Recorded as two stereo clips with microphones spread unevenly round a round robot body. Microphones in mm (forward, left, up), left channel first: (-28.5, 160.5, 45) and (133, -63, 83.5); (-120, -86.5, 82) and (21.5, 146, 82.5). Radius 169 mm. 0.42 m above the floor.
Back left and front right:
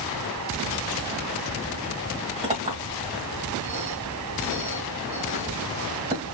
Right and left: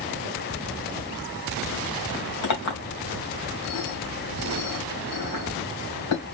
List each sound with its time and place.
2.4 s a clink: 125° right, 2.5 m